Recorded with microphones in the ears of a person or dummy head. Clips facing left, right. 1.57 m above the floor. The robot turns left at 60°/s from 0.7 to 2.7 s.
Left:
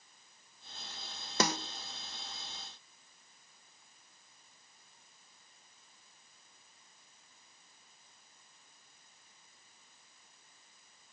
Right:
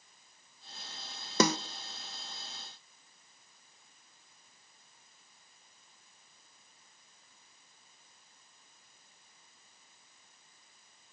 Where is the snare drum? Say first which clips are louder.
Right 5 dB; 80° right, 0.6 m; by 1.6 s 75° right (ahead or behind), 0.6 m.